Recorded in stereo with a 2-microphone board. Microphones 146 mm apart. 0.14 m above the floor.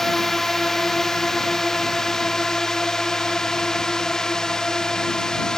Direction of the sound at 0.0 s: 5° left (ahead or behind).